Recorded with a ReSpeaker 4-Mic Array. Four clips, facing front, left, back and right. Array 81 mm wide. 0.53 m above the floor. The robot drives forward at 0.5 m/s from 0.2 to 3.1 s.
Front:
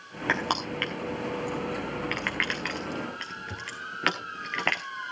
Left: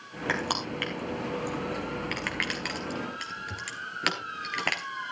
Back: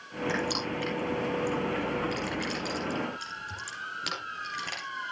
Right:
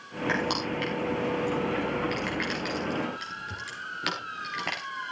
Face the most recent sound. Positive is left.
turn(degrees=15)